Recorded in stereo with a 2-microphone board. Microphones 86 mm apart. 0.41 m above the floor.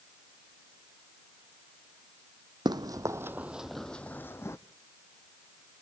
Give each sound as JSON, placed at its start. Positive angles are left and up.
{"t": 2.6, "sound": "running footsteps", "side_deg": -55, "distance_m": 0.7}